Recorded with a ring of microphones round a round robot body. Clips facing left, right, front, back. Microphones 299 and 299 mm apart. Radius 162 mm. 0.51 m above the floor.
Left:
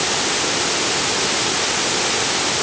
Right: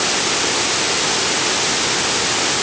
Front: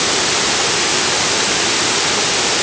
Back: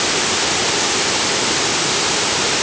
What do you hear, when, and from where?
Only background noise.